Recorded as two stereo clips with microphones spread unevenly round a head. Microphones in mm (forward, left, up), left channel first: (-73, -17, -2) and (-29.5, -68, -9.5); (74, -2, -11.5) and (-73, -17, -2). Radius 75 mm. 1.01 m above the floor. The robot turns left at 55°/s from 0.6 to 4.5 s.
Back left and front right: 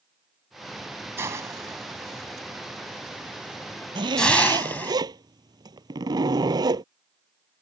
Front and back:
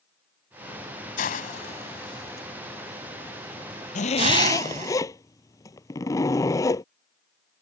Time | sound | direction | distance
1.2 | a hiss | 5° left | ?
4.0 | a zipper | 35° right | ?